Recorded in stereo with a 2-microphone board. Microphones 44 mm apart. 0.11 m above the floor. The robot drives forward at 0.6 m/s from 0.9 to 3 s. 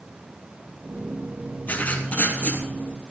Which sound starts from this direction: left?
Writing, at 1.7 s.